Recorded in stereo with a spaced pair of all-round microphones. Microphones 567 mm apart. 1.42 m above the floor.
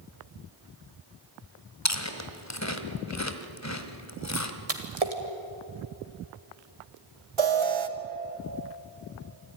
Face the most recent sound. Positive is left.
turn(degrees=-55)  # may be behind; listen again after turning